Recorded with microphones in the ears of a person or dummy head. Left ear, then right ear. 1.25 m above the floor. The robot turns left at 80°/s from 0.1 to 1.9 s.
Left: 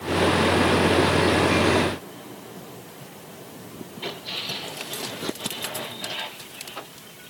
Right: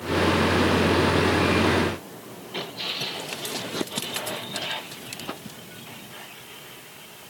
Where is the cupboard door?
No cupboard door in this recording.